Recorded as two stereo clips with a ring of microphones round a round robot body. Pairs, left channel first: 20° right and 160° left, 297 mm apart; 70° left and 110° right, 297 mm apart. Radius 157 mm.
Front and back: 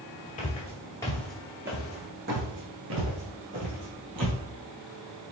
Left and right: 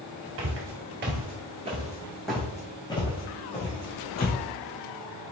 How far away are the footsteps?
About 1.0 m.